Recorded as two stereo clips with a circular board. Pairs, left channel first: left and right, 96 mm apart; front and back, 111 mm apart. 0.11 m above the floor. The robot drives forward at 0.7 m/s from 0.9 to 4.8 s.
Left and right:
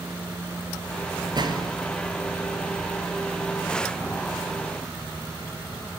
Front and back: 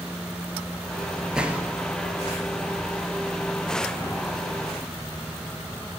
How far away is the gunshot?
About 1.2 m.